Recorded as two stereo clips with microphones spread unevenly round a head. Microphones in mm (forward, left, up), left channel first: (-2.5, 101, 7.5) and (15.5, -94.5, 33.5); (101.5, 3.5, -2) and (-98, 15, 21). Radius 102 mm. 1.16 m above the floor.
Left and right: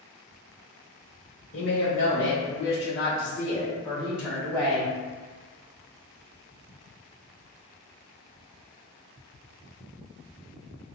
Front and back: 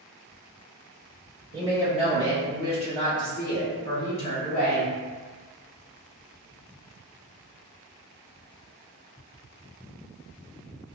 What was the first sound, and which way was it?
A woman speaking, 115° left.